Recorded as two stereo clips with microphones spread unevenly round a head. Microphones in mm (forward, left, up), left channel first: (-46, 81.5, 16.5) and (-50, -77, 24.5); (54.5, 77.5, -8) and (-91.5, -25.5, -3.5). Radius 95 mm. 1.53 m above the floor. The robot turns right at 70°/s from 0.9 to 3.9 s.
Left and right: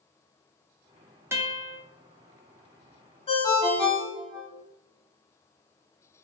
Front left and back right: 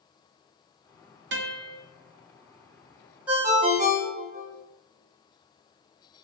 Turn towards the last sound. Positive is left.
turn(degrees=180)